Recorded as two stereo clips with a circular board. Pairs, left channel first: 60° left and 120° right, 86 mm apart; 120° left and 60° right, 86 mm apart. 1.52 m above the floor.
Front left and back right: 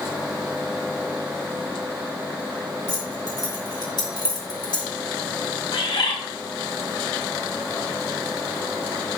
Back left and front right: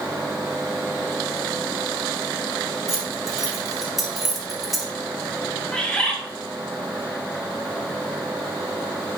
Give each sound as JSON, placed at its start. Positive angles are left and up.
{"t": 2.9, "sound": "keys jangling", "azimuth_deg": 25, "distance_m": 3.0}
{"t": 5.7, "sound": "a bird", "azimuth_deg": 40, "distance_m": 1.6}